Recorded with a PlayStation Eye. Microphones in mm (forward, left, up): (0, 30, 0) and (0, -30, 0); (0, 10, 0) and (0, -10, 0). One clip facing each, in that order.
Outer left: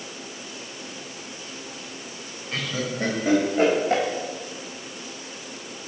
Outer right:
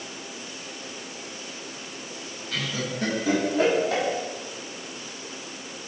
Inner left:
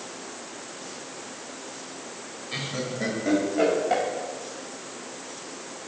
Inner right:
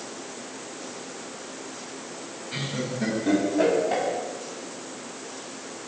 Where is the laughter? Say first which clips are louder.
Outer left 2 dB, even; 35° left (ahead or behind), 4 m; by 4.0 s 55° left (ahead or behind), 4.5 m.